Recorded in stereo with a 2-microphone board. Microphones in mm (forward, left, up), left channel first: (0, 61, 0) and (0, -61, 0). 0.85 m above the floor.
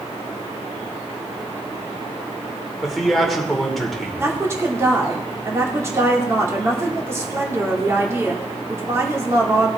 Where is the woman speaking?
25° right (ahead or behind), 2.5 m.